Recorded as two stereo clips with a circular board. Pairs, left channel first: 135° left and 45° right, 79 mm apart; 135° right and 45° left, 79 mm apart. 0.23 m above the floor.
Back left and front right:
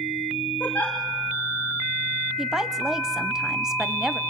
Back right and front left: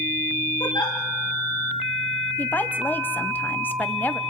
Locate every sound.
0.6 s a giggle: 155° right, 5.5 m
2.4 s a woman speaking: 120° right, 1.1 m